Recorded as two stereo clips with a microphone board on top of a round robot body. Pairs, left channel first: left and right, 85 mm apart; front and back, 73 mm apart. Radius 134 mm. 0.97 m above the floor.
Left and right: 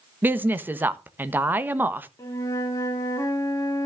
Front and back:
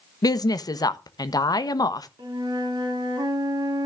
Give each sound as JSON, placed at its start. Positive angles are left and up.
{"t": 0.2, "sound": "a woman speaking", "azimuth_deg": -25, "distance_m": 1.3}
{"t": 2.2, "sound": "a flute", "azimuth_deg": 145, "distance_m": 1.9}